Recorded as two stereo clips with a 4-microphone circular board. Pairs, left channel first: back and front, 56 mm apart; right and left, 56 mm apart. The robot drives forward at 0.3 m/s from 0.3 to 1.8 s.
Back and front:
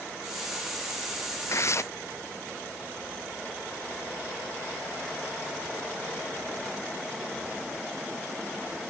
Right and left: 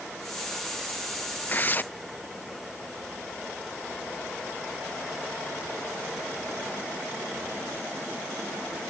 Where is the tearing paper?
145° right.